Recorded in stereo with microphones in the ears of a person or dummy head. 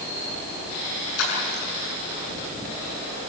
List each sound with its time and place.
1.2 s a splash: 85° left, 8 m